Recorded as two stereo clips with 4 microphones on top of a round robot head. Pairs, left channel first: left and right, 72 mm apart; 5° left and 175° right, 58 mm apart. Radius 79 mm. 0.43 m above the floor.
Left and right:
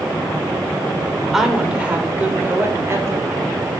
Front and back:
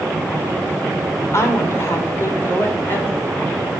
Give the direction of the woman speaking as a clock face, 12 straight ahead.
12 o'clock.